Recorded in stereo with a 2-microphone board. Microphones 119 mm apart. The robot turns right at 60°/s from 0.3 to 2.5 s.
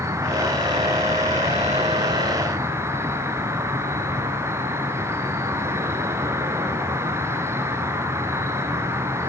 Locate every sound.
0.0 s an insect: 155° right, 3.5 m; by 9.3 s 25° right, 3.5 m